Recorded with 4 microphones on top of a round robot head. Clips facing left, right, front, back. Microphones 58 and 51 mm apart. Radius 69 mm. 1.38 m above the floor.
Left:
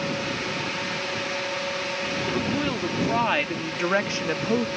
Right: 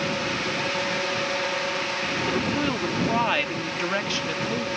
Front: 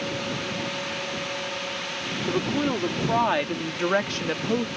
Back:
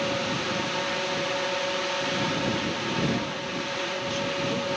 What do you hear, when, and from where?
2.3 s a woman speaking: 10° right; by 4.7 s 50° left